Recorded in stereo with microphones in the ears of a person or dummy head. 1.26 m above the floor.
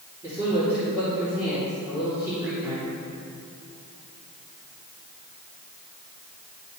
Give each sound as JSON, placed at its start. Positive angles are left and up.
{"t": 0.2, "sound": "a man speaking", "side_deg": -15, "distance_m": 2.5}